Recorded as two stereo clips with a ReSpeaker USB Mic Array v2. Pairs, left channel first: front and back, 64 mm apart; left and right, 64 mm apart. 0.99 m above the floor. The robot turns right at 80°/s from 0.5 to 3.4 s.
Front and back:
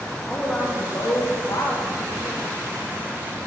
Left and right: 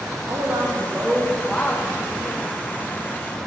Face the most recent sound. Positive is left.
turn(degrees=160)